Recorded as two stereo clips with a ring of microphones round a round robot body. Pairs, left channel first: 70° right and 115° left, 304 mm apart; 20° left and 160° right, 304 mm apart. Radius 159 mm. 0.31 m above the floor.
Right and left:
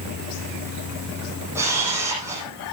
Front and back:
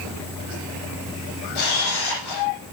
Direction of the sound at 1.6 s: 30° left.